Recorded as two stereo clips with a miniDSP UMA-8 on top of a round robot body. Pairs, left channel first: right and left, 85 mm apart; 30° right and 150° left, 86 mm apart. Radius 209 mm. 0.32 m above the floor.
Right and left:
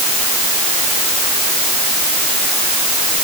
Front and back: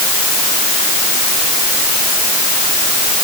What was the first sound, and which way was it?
Only background noise.